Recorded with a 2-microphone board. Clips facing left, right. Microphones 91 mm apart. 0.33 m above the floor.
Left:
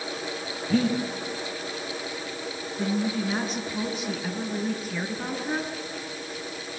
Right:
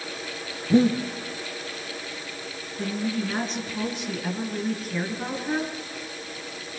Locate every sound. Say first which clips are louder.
0.7 s breathing: right 5 dB; 20° right (ahead or behind), 4.5 m
2.8 s a woman speaking: left 1 dB; centre (ahead or behind), 4.5 m